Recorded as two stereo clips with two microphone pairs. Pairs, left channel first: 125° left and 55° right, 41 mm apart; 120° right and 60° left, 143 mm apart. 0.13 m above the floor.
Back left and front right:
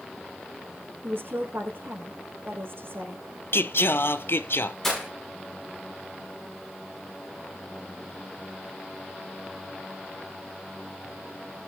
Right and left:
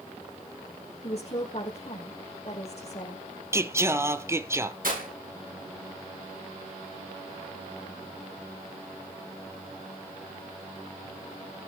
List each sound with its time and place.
1.0 s a woman speaking: 75° right, 5.5 m
3.5 s singing: 125° left, 0.8 m
4.8 s breaking glass: 50° left, 9.5 m